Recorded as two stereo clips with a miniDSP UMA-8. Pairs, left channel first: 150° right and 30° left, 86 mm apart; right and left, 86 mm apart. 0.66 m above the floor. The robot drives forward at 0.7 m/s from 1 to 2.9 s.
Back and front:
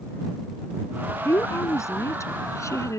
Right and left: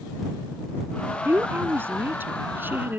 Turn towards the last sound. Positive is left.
turn(degrees=155)